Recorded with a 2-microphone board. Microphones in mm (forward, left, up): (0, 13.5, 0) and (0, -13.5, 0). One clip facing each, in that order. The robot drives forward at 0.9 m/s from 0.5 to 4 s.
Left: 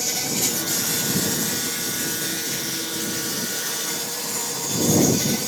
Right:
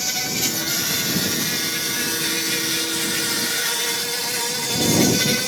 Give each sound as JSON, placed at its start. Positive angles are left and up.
{"t": 0.0, "sound": "an insect", "side_deg": -30, "distance_m": 2.5}